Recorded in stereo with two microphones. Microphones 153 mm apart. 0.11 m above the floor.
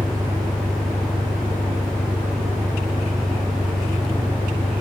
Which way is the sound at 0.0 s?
25° right (ahead or behind).